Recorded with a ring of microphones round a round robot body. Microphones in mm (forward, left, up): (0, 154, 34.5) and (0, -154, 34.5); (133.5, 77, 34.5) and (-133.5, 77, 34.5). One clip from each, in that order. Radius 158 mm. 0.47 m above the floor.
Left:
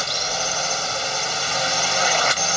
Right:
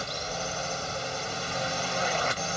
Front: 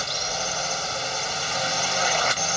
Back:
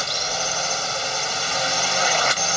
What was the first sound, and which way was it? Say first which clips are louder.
A drone: left 10 dB, back 3 dB; 120° left.